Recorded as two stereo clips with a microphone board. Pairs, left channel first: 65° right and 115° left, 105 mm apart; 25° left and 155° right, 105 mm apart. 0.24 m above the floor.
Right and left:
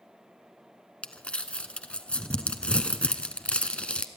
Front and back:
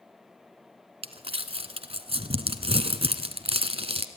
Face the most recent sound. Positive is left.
turn(degrees=-145)